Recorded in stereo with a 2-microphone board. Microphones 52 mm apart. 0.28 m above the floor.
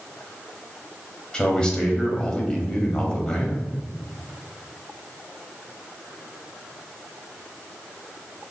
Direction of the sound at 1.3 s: 15° left (ahead or behind).